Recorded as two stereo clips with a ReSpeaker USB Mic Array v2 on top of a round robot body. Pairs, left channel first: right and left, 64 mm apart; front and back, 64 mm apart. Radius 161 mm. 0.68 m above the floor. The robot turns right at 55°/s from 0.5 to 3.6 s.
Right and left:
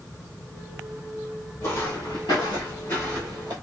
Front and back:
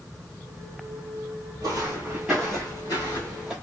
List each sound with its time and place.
1.6 s footsteps: 150° right, 1.5 m; by 3.5 s 100° left, 0.8 m